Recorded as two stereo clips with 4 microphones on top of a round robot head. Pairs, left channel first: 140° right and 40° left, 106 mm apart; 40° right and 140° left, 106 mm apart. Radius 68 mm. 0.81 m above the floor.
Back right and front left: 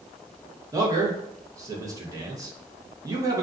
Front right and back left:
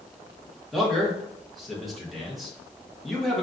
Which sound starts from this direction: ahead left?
A man speaking, at 0.7 s.